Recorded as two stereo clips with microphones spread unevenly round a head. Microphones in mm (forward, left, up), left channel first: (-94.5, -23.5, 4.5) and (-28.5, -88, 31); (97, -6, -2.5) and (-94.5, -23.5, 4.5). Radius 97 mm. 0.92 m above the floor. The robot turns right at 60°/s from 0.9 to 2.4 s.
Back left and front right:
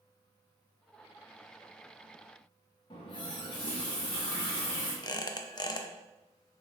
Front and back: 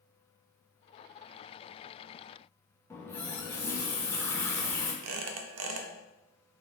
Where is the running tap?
85° left, 0.5 m.